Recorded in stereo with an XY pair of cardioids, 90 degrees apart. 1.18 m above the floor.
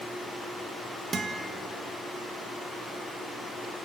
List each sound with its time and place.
1.1 s a guitar: 45° right, 1.5 m